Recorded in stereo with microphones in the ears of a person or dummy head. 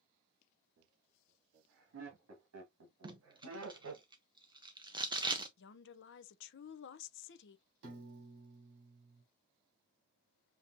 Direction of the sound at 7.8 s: 60° right (ahead or behind).